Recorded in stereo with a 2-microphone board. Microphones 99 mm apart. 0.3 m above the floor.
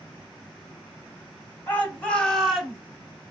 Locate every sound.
1.7 s a shout: 20° left (ahead or behind), 1.7 m; by 2.8 s 5° right (ahead or behind), 1.6 m